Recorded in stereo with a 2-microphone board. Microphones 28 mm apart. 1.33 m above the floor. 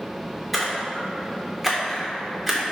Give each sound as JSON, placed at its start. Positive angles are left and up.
{"t": 0.5, "sound": "a splash", "side_deg": 0, "distance_m": 2.5}